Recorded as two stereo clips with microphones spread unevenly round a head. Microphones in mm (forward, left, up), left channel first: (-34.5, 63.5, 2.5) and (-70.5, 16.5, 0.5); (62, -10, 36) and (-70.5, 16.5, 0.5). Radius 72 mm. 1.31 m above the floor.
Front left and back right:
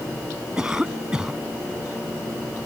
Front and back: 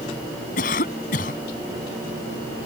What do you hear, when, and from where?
0.6 s a cough: 40° right